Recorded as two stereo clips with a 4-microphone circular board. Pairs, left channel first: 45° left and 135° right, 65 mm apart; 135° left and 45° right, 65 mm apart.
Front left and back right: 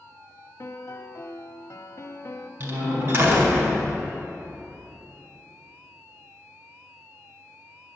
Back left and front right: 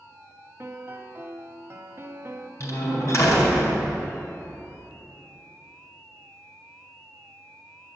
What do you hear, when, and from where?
0.6 s a piano: 5° left, 0.9 m
2.6 s a door slam: straight behind, 4 m